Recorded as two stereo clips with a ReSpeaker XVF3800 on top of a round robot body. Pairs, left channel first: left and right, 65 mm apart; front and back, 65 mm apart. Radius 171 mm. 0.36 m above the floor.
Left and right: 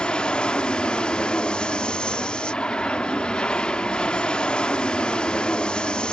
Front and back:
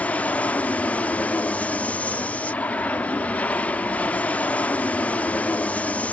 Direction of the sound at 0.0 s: 35° left.